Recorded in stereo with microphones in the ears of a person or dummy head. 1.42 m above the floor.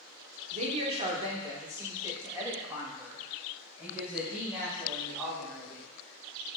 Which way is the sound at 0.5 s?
45° right (ahead or behind).